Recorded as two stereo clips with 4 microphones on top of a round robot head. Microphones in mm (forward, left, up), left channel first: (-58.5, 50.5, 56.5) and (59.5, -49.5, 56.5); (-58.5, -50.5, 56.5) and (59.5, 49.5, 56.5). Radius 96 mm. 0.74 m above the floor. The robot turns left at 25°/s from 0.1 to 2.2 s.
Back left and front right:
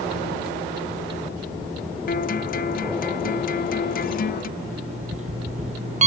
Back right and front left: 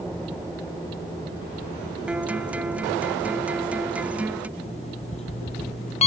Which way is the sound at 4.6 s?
85° right.